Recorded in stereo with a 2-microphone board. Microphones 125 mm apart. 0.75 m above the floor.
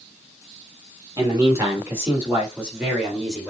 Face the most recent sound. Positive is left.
turn(degrees=0)  # may be behind; listen again after turning